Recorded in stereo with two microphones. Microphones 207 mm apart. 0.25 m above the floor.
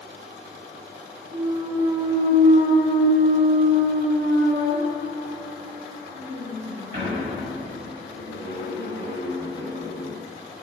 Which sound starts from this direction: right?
A clunk, at 1.3 s.